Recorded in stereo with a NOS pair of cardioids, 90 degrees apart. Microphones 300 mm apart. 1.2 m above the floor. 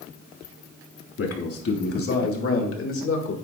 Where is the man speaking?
50° left, 3 m; by 3.4 s 45° left, 2.0 m.